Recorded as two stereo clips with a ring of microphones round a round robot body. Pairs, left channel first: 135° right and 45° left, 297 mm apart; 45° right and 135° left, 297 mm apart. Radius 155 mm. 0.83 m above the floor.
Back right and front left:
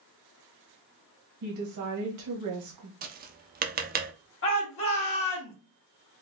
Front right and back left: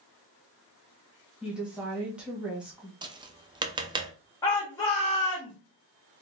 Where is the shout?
120° right, 1.3 m.